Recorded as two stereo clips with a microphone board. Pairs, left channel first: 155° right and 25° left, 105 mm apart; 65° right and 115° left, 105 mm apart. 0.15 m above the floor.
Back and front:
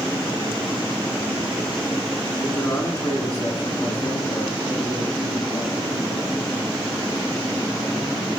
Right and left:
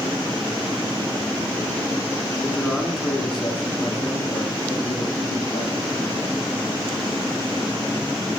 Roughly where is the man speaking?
Behind.